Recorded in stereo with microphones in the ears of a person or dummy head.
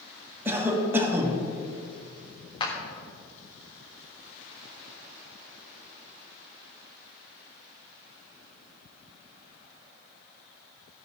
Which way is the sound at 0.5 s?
10° right (ahead or behind).